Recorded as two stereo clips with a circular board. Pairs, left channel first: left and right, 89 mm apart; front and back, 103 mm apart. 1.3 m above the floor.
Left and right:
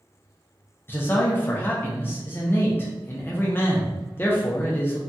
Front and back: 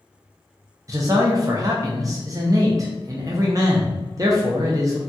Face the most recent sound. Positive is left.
turn(degrees=145)